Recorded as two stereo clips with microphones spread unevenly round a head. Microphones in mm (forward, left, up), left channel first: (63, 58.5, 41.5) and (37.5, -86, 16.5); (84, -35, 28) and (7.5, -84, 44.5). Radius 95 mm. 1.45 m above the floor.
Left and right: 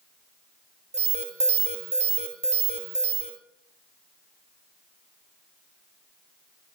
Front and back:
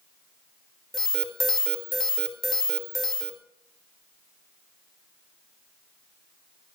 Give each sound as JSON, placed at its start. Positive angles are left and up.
{"t": 0.9, "sound": "an alarm", "azimuth_deg": -55, "distance_m": 3.5}